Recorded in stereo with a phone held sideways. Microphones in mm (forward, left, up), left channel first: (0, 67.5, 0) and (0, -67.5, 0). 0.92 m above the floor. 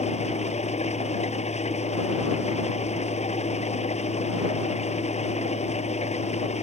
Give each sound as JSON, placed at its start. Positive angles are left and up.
{"t": 0.0, "sound": "an engine running", "side_deg": 55}